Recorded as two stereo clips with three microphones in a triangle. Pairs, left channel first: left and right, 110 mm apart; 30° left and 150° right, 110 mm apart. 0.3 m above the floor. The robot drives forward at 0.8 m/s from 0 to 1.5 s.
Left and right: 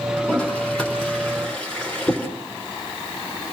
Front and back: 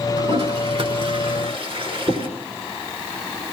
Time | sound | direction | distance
0.2 | a toilet flushing | 170° left | 3.5 m